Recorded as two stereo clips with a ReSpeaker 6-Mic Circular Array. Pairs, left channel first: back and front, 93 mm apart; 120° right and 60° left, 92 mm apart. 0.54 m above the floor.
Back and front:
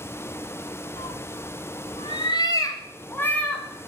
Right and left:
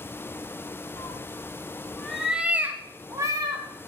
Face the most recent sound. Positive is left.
turn(degrees=105)